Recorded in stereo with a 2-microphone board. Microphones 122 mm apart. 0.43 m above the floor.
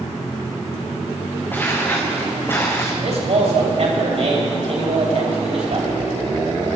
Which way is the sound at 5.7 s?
55° right (ahead or behind).